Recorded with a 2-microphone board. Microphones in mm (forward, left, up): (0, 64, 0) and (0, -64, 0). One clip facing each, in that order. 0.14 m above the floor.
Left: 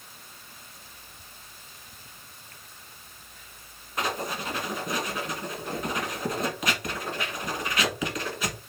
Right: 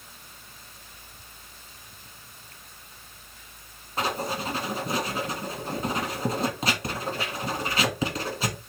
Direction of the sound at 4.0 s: 30° right (ahead or behind).